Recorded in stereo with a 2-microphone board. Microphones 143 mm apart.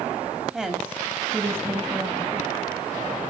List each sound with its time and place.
0.5 s a woman speaking: 5° right (ahead or behind), 4 m; by 2.5 s 25° right (ahead or behind), 4.5 m